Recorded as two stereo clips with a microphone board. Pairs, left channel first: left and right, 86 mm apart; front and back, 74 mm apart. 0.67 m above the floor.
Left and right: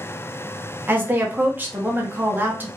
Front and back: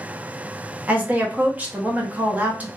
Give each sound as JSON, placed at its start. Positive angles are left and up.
{"t": 0.9, "sound": "a woman speaking", "azimuth_deg": -135, "distance_m": 0.7}